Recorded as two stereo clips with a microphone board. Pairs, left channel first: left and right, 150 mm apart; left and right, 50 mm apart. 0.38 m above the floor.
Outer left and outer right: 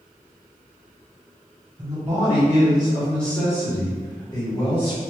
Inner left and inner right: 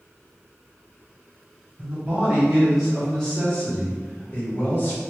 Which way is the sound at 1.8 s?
25° right (ahead or behind).